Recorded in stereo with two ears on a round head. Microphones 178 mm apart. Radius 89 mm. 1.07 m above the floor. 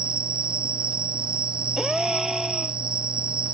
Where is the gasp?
Centre (ahead or behind).